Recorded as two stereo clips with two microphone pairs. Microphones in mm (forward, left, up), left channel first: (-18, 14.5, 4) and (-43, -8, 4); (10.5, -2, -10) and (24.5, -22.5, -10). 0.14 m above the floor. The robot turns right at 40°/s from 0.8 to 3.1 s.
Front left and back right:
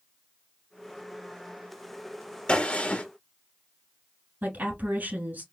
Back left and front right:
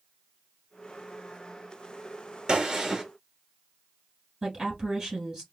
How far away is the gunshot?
About 1.3 m.